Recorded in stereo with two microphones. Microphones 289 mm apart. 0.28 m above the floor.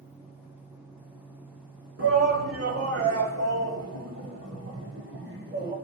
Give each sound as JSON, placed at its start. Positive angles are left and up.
{"t": 2.0, "sound": "a shout", "side_deg": -55, "distance_m": 3.5}